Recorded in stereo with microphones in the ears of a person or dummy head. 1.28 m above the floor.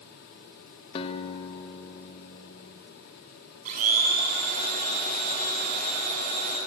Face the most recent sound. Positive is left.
turn(degrees=-45)  # may be behind; listen again after turning